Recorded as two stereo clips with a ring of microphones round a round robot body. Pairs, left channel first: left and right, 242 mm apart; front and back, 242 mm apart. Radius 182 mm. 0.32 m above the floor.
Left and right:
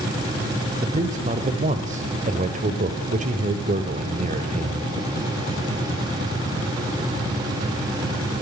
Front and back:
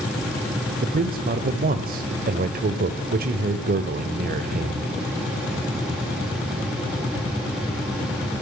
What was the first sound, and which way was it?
A man speaking, 140° right.